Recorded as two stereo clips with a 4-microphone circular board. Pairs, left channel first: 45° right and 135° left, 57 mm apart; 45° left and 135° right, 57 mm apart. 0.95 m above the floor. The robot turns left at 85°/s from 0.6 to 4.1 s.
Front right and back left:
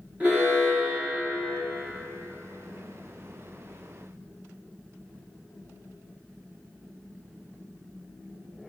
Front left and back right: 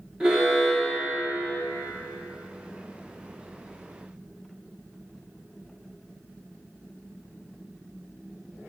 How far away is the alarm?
About 1.3 m.